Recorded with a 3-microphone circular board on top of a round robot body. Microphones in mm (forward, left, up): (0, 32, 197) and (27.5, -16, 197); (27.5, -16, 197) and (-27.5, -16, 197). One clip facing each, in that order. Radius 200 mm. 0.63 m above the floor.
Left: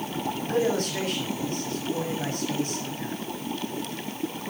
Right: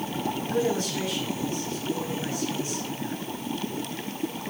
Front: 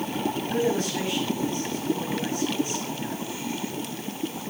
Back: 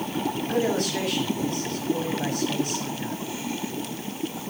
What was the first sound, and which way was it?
A man speaking, 155° left.